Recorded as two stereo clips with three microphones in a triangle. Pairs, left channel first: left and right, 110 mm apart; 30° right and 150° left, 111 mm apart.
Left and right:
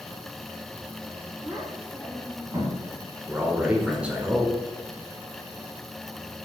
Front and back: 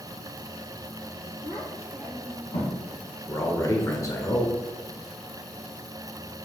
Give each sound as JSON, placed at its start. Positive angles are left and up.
{"t": 1.4, "sound": "a child speaking", "azimuth_deg": -35, "distance_m": 2.0}
{"t": 3.3, "sound": "a man speaking", "azimuth_deg": -20, "distance_m": 0.9}